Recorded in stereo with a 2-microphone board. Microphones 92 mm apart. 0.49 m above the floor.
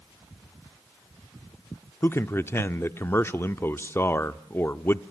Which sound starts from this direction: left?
A man speaking, at 2.0 s.